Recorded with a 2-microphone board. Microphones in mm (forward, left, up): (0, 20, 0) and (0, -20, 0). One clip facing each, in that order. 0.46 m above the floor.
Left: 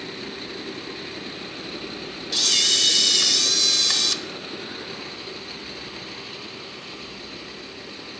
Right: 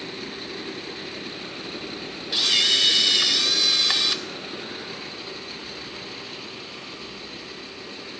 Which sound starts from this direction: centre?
A camera shutter, at 2.3 s.